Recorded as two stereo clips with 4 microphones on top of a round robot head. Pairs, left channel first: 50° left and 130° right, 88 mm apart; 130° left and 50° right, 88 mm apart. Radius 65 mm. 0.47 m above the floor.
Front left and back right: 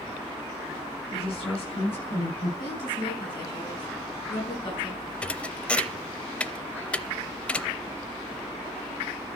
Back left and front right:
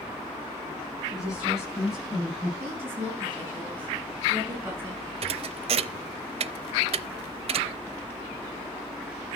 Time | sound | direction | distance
1.1 | a woman speaking | 30° left | 7 m
2.6 | a woman speaking | 15° left | 6 m
5.2 | a thud | 25° right | 0.5 m